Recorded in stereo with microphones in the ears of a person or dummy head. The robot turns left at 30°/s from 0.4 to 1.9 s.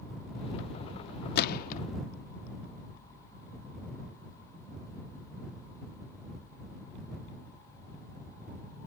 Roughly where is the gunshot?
Left.